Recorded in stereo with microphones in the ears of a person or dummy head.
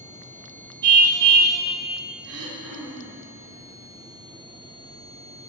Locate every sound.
0.8 s a car horn: 50° right (ahead or behind), 2.5 m
2.2 s throat clearing: 75° right (ahead or behind), 3 m